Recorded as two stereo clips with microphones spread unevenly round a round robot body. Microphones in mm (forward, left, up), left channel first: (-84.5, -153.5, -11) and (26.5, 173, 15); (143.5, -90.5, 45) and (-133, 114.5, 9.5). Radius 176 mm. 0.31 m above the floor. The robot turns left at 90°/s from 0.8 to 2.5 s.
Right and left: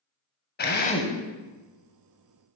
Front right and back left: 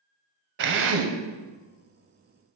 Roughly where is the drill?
Behind.